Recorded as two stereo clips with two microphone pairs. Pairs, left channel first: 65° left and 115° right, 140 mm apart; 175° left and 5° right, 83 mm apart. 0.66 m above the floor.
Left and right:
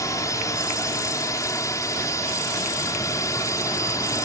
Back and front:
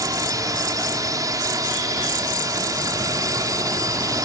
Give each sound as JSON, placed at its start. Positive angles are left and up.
{"t": 0.0, "sound": "a drone", "azimuth_deg": 10}